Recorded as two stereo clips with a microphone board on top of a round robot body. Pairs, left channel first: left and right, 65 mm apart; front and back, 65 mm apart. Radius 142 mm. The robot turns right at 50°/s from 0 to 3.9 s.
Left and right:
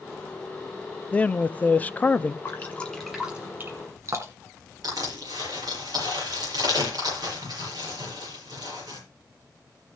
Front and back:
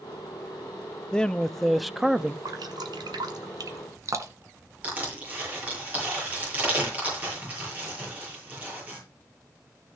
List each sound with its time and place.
1.1 s a man speaking: 55° left, 0.6 m; by 2.4 s 120° left, 0.6 m
2.5 s dripping: 150° left, 1.1 m; by 4.6 s 140° right, 1.1 m
4.8 s crushing: 115° right, 8 m